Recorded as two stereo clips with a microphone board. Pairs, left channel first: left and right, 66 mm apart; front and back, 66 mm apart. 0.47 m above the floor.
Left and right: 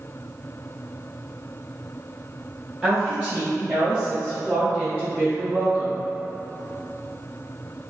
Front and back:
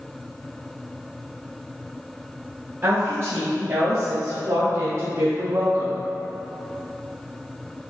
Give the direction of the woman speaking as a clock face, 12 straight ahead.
5 o'clock.